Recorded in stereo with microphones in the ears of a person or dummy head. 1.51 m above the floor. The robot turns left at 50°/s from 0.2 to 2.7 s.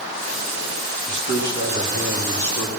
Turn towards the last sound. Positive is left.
turn(degrees=-175)